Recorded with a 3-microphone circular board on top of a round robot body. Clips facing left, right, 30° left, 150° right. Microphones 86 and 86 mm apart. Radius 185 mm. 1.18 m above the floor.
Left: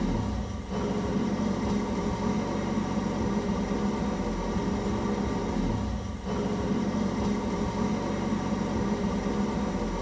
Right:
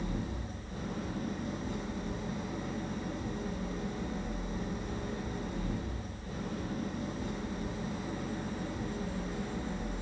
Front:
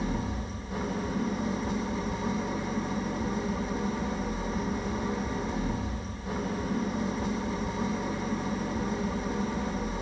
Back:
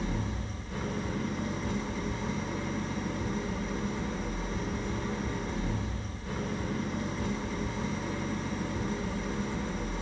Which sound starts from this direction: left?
An engine running, at 0.0 s.